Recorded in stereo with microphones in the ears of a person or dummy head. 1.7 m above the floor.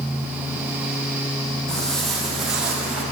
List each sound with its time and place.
1.7 s footsteps: 5° left (ahead or behind), 3.5 m; by 3.0 s 10° right (ahead or behind), 3.5 m